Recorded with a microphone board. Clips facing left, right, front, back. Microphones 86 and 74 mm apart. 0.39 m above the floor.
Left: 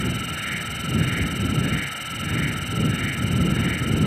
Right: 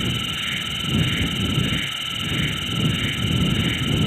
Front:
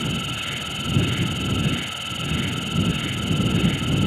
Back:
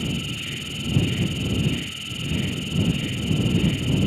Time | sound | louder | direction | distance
0.0 | an insect | even, front 1 dB | 15° left | ?